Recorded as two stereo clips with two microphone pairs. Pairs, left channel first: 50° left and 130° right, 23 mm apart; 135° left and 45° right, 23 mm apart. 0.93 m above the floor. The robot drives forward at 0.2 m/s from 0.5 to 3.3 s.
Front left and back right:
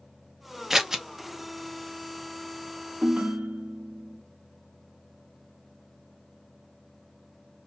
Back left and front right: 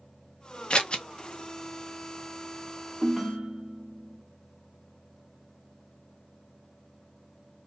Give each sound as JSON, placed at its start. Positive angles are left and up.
{"t": 0.7, "sound": "scissors", "azimuth_deg": 165, "distance_m": 0.6}
{"t": 3.0, "sound": "a ringtone", "azimuth_deg": -130, "distance_m": 0.8}